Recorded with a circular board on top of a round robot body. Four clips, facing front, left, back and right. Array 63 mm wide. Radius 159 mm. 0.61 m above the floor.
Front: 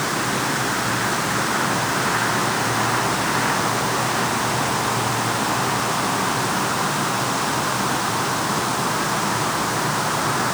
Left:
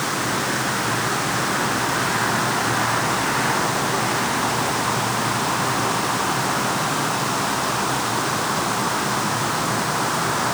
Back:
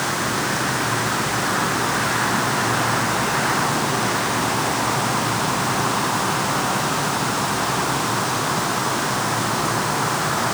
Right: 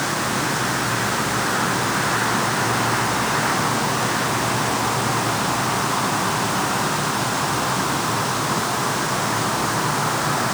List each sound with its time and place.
Only background noise.